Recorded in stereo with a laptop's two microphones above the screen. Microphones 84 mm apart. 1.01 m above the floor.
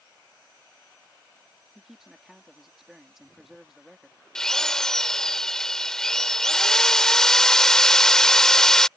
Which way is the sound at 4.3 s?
10° left (ahead or behind).